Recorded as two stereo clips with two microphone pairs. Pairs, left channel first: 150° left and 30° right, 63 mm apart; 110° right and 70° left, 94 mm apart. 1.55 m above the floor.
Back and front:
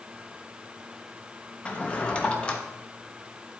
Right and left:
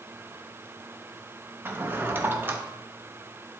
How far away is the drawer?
About 0.8 m.